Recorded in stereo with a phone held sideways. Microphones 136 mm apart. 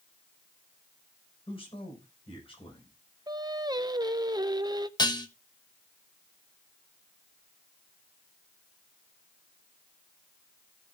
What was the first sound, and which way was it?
A man speaking, 40° left (ahead or behind).